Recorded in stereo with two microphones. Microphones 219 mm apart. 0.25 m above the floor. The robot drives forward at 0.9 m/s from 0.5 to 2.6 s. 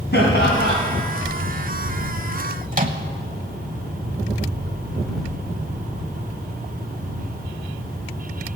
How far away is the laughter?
About 2.5 m.